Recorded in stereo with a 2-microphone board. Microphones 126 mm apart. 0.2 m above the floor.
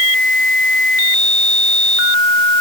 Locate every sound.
Only background noise.